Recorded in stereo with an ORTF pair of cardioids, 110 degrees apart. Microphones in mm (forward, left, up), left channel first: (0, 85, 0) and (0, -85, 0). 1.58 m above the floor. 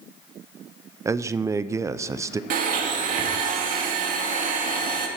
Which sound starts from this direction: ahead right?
A blender, at 2.5 s.